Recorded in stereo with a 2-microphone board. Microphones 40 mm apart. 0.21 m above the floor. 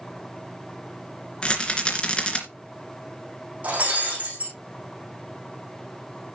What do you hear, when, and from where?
1.4 s a rattle: 25° left (ahead or behind), 2.5 m
3.6 s breaking glass: 40° right (ahead or behind), 8 m